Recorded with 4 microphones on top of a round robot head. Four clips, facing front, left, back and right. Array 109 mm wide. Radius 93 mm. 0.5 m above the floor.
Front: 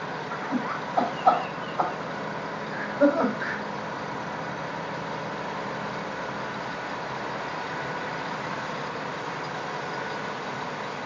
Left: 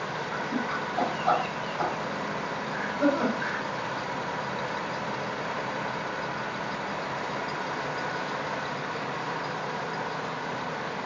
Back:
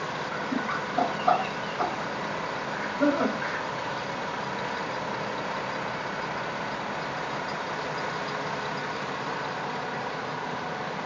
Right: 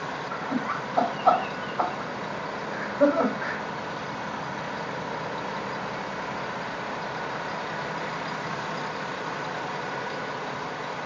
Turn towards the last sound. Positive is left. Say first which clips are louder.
# right 2 dB, front 2 dB
turn(degrees=-55)